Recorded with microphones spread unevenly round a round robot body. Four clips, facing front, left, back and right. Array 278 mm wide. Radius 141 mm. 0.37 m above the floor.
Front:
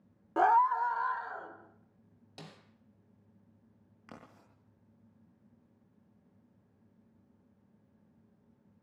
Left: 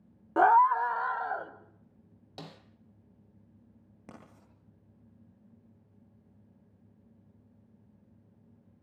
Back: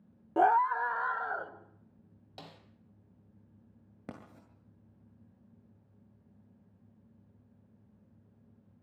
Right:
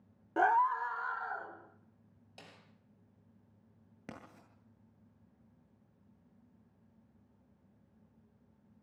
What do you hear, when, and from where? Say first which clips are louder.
0.4 s a scream: left 7 dB, even; 105° left, 1.1 m; by 1.5 s 125° left, 2.5 m
2.4 s a snare drum: left 10 dB, back 1 dB; 75° left, 3 m
4.1 s writing: right 1 dB, back 5 dB; 170° right, 8.5 m